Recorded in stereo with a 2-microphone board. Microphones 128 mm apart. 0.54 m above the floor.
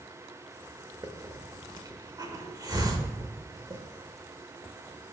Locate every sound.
1.0 s a hiss: 30° right (ahead or behind), 1.1 m